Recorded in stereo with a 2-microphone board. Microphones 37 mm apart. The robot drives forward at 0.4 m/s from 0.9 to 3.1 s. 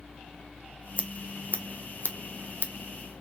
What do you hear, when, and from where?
1.0 s scissors: 40° left (ahead or behind), 1.4 m; by 2.7 s 65° left (ahead or behind), 1.0 m